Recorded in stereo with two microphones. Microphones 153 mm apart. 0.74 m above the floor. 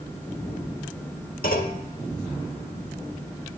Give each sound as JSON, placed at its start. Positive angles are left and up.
{"t": 1.4, "sound": "a clunk", "side_deg": 70, "distance_m": 1.2}